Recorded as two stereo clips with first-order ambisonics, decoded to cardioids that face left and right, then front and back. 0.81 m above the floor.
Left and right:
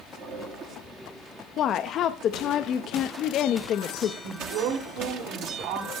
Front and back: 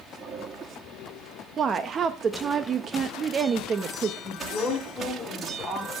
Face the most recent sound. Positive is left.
turn(degrees=-90)